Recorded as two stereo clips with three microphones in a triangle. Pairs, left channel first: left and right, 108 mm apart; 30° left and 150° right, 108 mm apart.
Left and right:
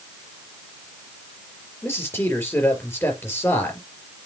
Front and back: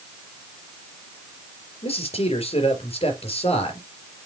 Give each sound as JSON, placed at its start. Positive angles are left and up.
{"t": 1.8, "sound": "a man speaking", "azimuth_deg": 25, "distance_m": 4.0}